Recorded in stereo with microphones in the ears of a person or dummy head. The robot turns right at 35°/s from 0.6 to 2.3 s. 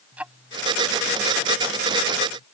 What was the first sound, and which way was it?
Ticking, 10° right (ahead or behind).